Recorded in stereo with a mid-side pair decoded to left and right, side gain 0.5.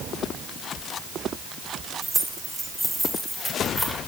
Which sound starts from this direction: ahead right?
Keys jangling, at 2.0 s.